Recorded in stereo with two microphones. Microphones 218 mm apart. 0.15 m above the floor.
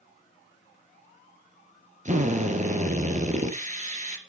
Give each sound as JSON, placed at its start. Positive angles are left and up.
{"t": 2.0, "sound": "a drill", "side_deg": -35, "distance_m": 2.5}